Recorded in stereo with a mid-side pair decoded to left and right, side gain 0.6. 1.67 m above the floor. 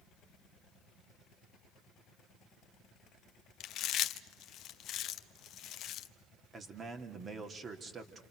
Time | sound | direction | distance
3.6 | chewing | 55° left | 1.0 m
6.5 | a man speaking | 30° right | 3.5 m